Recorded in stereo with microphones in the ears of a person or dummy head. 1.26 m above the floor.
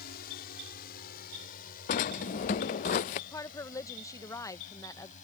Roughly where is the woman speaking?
Centre.